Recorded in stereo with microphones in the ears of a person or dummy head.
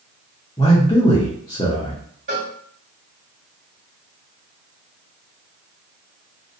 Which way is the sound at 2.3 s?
45° right (ahead or behind).